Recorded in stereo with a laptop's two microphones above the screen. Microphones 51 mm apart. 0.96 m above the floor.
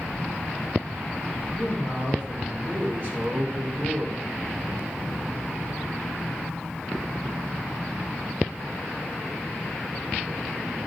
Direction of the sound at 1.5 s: 45° right (ahead or behind).